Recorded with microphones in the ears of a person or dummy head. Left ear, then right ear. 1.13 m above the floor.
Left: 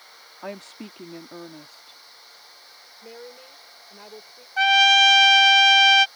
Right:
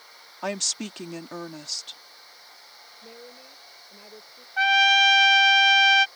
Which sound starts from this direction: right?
A woman speaking, at 0.4 s.